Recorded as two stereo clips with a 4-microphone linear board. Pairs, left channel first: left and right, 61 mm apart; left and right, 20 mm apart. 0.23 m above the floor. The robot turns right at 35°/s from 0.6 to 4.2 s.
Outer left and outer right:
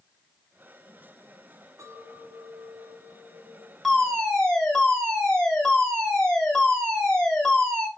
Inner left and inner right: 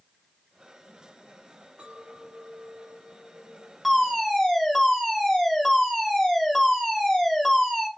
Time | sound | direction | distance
1.8 | a clink | 105° right | 1.5 m
3.8 | a fire alarm | 5° left (ahead or behind) | 2.5 m